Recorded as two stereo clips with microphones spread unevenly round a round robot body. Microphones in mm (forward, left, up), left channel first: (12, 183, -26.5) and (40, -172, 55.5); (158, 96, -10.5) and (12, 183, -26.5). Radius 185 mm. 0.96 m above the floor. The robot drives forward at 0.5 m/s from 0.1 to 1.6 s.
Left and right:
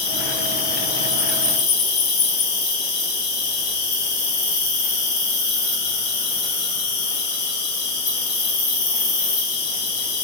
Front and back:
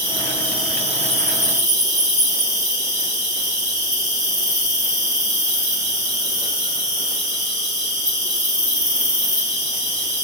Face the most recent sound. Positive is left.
turn(degrees=100)